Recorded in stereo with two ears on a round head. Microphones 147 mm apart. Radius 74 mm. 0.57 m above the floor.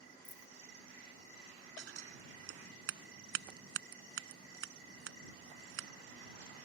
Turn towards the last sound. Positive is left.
turn(degrees=-85)